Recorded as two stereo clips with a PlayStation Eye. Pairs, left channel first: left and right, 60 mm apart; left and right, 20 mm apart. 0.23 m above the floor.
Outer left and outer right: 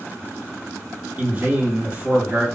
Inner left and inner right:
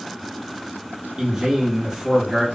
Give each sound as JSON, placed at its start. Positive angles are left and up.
{"t": 1.2, "sound": "a man speaking", "side_deg": -25, "distance_m": 1.7}